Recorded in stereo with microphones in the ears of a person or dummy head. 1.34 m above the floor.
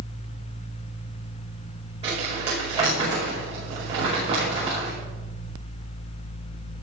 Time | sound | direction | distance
2.0 | crumpling | 30° right (ahead or behind) | 5 m